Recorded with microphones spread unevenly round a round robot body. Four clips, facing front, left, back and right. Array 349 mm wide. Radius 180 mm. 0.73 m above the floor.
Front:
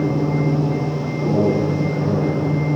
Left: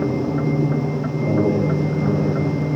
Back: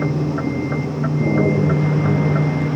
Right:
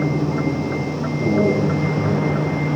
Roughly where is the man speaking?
Behind.